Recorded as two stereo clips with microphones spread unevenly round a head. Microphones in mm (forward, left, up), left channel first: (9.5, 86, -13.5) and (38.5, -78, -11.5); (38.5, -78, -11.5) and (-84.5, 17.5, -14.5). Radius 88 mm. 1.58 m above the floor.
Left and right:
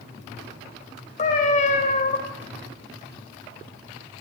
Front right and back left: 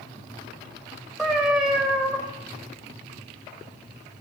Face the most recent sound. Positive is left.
turn(degrees=50)